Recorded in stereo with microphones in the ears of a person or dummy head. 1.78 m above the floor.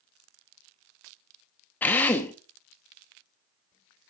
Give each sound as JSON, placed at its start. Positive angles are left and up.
{"t": 1.8, "sound": "a drill", "side_deg": 10, "distance_m": 1.2}